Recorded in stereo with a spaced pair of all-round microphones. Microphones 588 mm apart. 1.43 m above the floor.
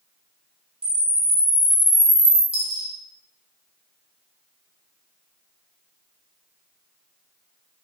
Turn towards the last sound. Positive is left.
turn(degrees=35)  # may be behind; listen again after turning